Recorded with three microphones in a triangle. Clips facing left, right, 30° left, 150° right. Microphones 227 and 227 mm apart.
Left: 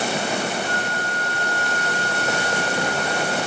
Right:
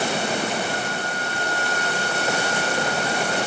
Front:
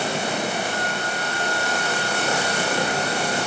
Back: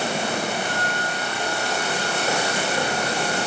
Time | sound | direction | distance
0.7 | a flute | 115° left | 6.5 m